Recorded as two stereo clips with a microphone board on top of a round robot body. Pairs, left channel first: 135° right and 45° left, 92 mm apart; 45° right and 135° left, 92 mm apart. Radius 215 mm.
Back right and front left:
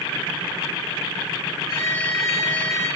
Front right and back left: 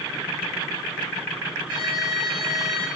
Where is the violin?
175° left, 2 m.